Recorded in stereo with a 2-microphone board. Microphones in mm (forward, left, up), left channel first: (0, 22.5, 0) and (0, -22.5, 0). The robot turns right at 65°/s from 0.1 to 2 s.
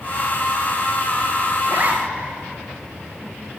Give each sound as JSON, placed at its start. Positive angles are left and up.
{"t": 1.6, "sound": "a zipper", "side_deg": -60, "distance_m": 2.0}